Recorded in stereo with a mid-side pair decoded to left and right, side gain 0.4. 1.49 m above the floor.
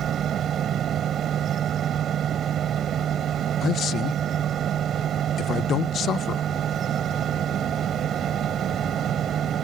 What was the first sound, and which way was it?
A fan, 65° right.